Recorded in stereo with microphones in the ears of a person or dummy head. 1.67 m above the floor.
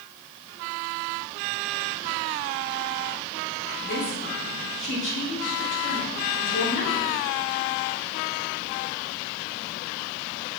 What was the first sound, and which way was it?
A woman speaking, 50° left (ahead or behind).